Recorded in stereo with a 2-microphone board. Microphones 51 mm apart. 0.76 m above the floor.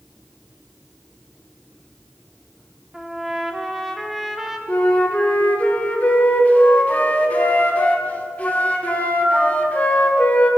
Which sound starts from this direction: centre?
A trumpet, at 2.9 s.